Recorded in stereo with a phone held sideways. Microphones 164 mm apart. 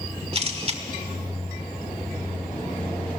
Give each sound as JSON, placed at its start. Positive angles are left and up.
{"t": 0.3, "sound": "a camera shutter", "side_deg": -40, "distance_m": 1.5}